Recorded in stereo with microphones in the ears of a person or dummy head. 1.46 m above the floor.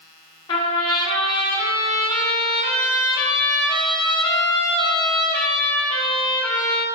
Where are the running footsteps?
No running footsteps in this recording.